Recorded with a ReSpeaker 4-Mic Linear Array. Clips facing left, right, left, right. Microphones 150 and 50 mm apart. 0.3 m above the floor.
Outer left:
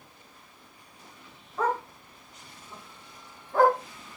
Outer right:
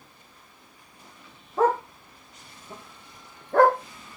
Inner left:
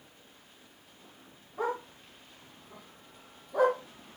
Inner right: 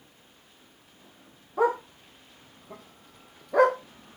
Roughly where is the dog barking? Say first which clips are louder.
Outer right 6 dB, inner right 8 dB; right.